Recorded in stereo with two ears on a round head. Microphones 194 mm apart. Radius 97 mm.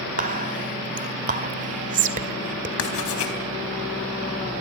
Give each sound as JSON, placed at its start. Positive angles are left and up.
{"t": 0.2, "sound": "whispering", "side_deg": -35, "distance_m": 2.0}
{"t": 2.8, "sound": "writing", "side_deg": 70, "distance_m": 4.0}